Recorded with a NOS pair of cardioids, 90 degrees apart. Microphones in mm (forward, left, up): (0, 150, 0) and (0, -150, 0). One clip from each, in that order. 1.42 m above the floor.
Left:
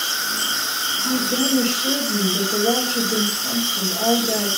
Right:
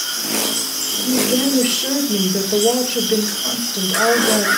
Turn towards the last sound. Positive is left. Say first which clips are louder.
# right 3 dB
turn(degrees=-65)